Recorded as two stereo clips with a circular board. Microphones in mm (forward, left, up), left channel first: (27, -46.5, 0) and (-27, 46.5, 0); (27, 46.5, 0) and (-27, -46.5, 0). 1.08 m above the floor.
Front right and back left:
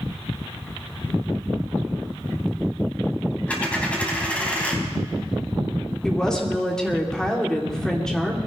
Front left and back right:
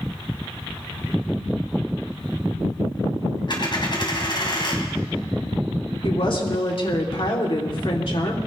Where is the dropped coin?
15° left, 3 m.